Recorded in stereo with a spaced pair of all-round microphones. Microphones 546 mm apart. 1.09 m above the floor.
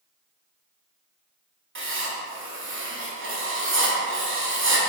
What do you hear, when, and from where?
1.8 s writing: 25° right (ahead or behind), 0.6 m